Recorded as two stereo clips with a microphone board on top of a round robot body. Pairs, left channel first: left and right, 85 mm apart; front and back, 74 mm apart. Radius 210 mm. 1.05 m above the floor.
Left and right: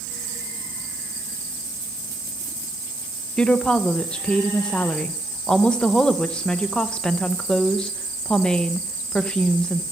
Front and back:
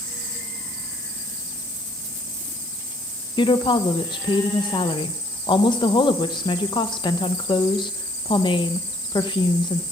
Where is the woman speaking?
10° left, 0.7 m.